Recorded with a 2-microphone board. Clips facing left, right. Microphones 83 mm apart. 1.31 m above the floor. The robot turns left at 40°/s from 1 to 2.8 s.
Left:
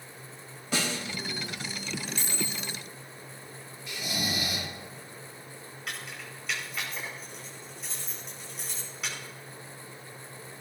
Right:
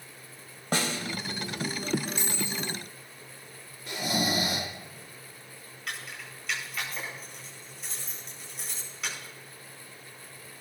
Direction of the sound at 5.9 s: Centre (ahead or behind).